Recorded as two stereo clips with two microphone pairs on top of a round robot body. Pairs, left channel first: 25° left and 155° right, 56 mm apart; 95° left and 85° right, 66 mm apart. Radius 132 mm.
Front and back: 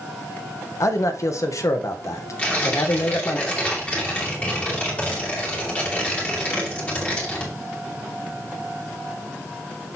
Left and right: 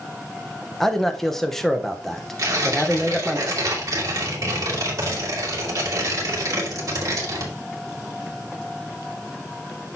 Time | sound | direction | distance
0.8 | a man speaking | 15° left | 1.1 m
2.4 | tearing paper | 40° right | 2 m